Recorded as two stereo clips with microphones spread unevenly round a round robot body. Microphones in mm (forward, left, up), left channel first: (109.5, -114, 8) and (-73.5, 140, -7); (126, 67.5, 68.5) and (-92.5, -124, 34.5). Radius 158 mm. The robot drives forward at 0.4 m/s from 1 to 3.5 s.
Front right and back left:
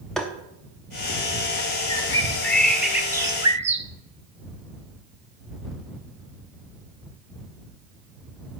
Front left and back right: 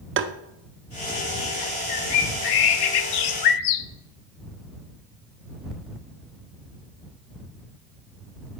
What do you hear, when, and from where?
0.2 s tapping: 145° right, 0.6 m
1.9 s a bird: 25° left, 1.0 m; by 3.9 s 55° left, 0.5 m